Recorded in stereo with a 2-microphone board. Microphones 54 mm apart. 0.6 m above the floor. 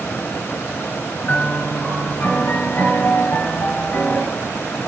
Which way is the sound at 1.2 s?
45° left (ahead or behind).